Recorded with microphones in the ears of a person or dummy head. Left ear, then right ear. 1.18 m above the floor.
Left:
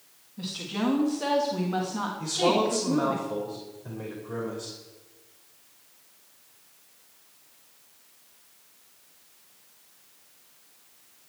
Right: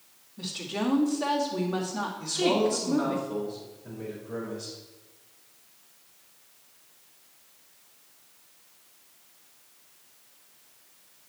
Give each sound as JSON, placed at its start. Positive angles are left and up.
{"t": 0.4, "sound": "a woman speaking", "side_deg": 5, "distance_m": 2.0}
{"t": 2.2, "sound": "a man speaking", "side_deg": 40, "distance_m": 4.0}